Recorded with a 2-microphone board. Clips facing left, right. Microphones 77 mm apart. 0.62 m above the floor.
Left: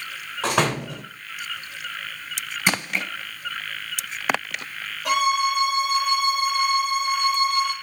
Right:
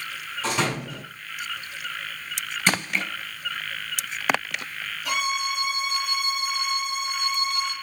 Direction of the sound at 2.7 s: 15° left (ahead or behind).